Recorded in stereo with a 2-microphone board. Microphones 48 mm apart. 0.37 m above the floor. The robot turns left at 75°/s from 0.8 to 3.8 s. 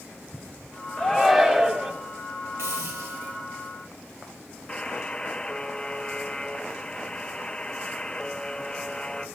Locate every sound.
1.0 s a shout: 35° left, 1.9 m; by 1.9 s 35° right, 1.9 m
2.6 s a hiss: 75° right, 1.9 m; by 3.4 s 135° right, 1.9 m
4.7 s a buzzer: 15° left (ahead or behind), 0.9 m